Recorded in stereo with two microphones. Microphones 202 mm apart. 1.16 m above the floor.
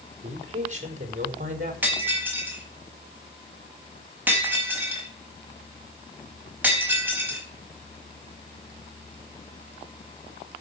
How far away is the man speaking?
About 4 m.